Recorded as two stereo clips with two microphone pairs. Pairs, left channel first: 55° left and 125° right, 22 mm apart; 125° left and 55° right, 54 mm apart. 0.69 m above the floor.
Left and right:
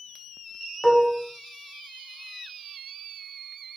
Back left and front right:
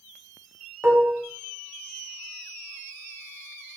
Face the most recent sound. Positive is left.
turn(degrees=-5)